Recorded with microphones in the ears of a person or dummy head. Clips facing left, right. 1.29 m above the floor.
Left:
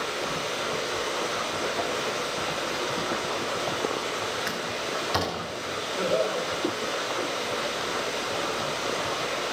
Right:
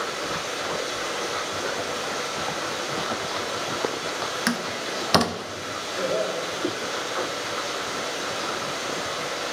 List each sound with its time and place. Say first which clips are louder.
0.0 s running water: even; 75° right (ahead or behind), 8 m
4.5 s a door slam: right 3 dB; 55° right (ahead or behind), 1.0 m
6.0 s laughter: even; 15° right (ahead or behind), 4 m